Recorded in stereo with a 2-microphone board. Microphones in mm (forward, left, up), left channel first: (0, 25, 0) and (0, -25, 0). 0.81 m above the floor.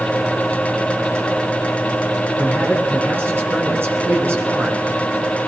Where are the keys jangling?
I don't hear keys jangling.